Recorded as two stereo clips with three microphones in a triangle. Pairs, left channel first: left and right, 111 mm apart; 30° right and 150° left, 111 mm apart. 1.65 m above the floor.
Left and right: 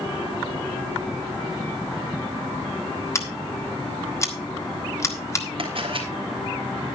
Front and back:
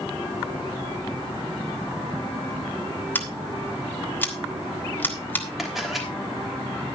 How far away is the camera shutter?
About 3 m.